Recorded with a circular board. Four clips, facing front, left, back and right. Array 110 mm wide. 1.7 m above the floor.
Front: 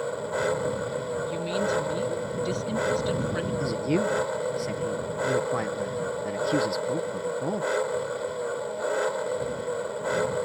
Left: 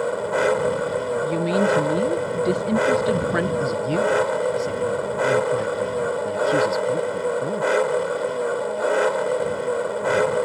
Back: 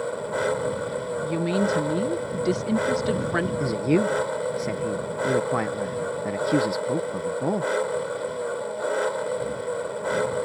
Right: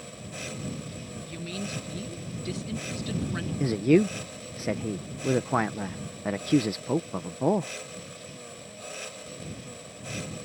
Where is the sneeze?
No sneeze in this recording.